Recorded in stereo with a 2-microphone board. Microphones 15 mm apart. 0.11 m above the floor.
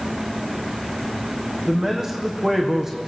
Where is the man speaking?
35° right (ahead or behind), 5 m.